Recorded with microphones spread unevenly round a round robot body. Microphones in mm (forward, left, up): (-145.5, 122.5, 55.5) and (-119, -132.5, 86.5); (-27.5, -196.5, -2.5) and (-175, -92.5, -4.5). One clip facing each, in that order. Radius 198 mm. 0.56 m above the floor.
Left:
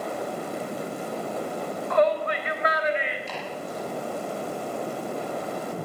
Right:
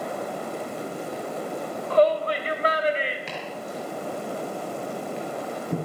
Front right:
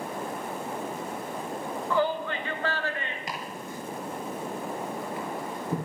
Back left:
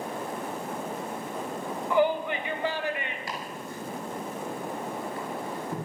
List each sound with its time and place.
1.9 s a shout: 140° right, 2.5 m
3.3 s chopping: 105° right, 6.5 m